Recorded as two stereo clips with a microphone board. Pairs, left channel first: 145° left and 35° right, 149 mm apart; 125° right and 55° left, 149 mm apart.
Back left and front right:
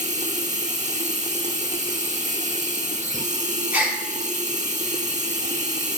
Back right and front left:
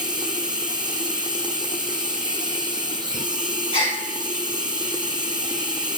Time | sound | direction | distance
0.0 | running water | straight ahead | 1.0 m
3.7 | a gasp | 105° right | 1.9 m